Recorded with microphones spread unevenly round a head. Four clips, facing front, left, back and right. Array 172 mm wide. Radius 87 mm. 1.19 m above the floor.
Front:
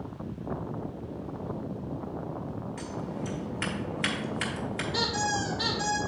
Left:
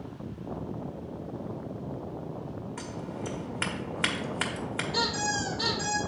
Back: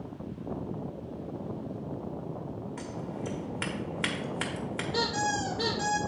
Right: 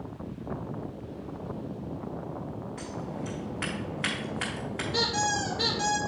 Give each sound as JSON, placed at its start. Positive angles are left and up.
{"t": 2.8, "sound": "scissors", "azimuth_deg": 135, "distance_m": 1.2}
{"t": 4.9, "sound": "a squeak", "azimuth_deg": -160, "distance_m": 3.5}